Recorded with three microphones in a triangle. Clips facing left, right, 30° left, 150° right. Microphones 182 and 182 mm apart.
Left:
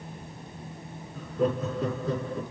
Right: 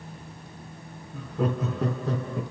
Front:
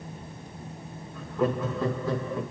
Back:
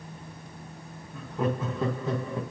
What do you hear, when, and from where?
1.1 s laughter: 80° right, 3 m